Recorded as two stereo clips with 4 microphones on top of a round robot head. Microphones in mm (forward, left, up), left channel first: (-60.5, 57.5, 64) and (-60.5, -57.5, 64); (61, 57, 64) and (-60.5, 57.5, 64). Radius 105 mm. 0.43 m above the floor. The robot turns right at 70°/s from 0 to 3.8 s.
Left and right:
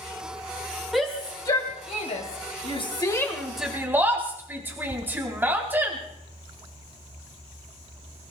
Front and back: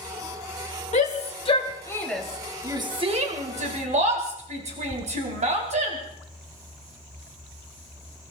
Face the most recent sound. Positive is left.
turn(degrees=-160)